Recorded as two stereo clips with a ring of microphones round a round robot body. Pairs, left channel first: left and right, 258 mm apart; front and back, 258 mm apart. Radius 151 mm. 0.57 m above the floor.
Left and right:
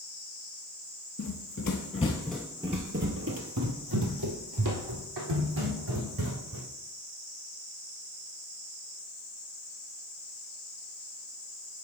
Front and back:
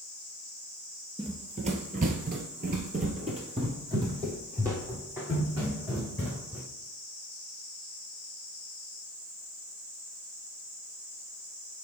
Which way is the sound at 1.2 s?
115° left.